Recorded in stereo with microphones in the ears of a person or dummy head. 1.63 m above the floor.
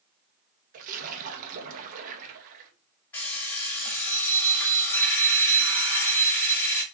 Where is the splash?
45° right (ahead or behind), 1.5 m.